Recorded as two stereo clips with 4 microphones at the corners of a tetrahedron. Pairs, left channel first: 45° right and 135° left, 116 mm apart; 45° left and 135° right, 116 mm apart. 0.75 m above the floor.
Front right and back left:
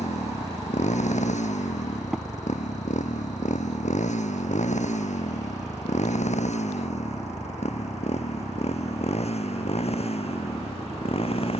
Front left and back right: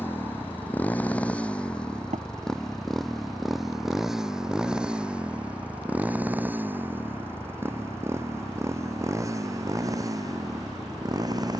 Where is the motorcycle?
30° right; by 11.6 s 80° right.